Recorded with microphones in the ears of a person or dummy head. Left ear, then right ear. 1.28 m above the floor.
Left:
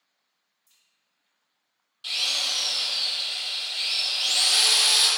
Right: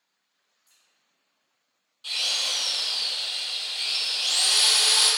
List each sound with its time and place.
0.7 s a crack: 10° left (ahead or behind), 1.3 m
2.0 s a drill: 20° left (ahead or behind), 0.5 m